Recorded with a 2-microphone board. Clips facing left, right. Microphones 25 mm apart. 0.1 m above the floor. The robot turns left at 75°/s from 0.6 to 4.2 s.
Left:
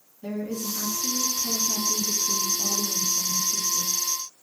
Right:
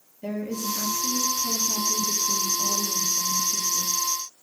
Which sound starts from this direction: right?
A woman speaking, at 0.2 s.